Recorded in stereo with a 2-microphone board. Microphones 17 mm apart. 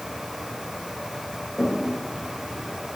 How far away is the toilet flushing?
About 4.5 m.